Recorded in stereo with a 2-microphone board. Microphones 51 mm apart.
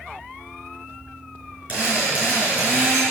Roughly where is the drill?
Right.